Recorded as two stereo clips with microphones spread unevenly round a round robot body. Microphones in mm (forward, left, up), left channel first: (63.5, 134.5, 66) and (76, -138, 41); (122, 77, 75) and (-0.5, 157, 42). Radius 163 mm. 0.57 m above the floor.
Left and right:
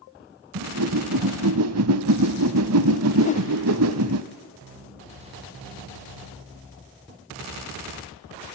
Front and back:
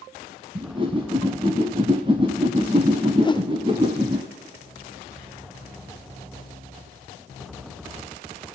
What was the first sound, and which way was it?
A whoosh, 135° right.